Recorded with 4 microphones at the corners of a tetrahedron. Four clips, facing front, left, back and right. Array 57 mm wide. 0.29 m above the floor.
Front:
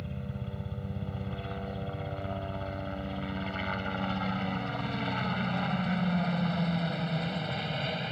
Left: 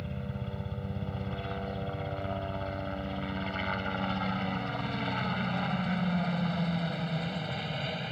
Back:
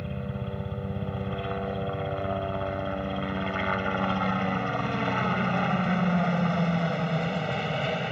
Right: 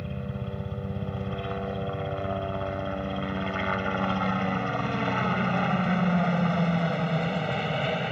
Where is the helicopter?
160° right; by 8.1 s 120° right.